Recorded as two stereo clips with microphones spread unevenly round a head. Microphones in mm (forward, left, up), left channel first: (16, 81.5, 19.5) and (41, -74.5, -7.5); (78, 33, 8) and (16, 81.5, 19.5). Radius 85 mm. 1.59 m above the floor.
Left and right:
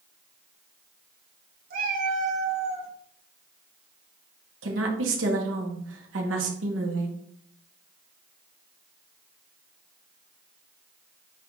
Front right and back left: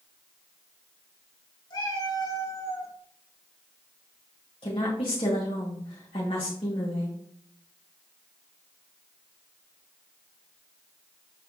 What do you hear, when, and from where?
1.7 s a cat meowing: 65° right, 1.7 m; by 2.9 s 40° right, 1.3 m
4.6 s a woman speaking: 90° right, 2.0 m